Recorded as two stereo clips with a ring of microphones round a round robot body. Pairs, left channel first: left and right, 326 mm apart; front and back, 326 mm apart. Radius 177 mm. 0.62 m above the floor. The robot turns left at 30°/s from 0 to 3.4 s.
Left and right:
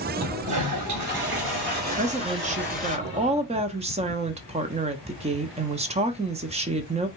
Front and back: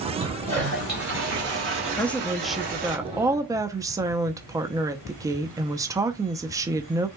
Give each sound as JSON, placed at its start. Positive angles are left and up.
{"t": 0.2, "sound": "a toilet flushing", "azimuth_deg": -100, "distance_m": 3.0}
{"t": 2.0, "sound": "a woman speaking", "azimuth_deg": -75, "distance_m": 0.6}